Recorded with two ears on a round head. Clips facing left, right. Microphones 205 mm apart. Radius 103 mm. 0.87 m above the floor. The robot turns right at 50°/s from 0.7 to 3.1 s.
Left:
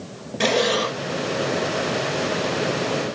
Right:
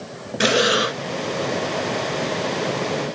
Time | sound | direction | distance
0.4 | breathing | 10° right (ahead or behind) | ?